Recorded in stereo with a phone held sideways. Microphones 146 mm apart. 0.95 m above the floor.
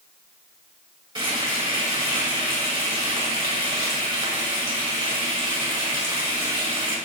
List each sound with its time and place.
1.1 s frying: 35° right (ahead or behind), 5 m